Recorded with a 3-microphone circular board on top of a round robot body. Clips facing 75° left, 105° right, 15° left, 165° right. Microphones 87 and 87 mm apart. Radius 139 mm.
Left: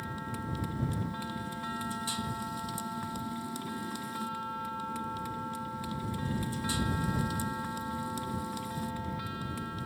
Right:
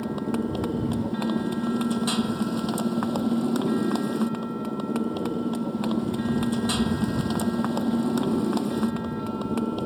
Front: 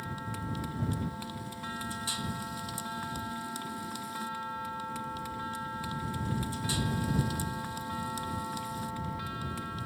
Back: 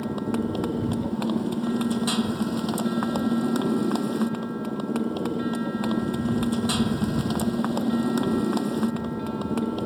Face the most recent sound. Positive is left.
turn(degrees=-130)